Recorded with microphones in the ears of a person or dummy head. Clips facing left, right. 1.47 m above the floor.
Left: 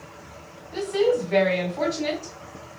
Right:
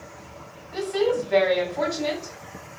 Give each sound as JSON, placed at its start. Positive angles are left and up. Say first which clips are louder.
{"t": 0.7, "sound": "a woman speaking", "louder": "left 2 dB", "side_deg": 0, "distance_m": 1.7}